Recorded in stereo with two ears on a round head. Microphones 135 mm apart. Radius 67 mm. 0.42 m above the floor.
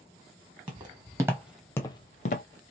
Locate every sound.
0.7 s footsteps: 35° right (ahead or behind), 1.2 m; by 2.5 s 60° left (ahead or behind), 0.7 m